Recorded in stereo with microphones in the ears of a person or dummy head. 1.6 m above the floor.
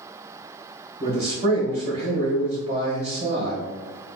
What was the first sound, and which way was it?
A man speaking, 30° right (ahead or behind).